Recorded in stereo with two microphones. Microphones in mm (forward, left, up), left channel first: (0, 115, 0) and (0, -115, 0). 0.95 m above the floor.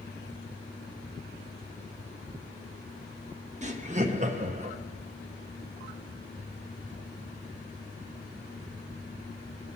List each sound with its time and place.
3.6 s laughter: 30° right (ahead or behind), 1.0 m